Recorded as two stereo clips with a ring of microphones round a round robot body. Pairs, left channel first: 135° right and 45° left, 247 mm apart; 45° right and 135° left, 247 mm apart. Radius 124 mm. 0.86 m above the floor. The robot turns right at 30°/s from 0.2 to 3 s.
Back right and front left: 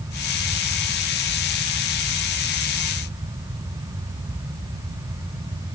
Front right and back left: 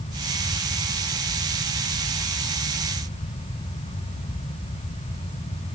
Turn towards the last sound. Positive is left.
No sound to turn to.